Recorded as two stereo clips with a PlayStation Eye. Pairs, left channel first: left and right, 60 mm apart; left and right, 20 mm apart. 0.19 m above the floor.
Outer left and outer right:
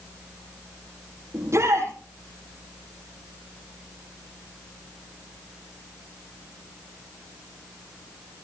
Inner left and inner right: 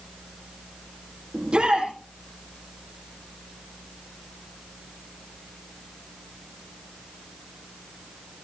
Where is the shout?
55° right (ahead or behind), 8 m.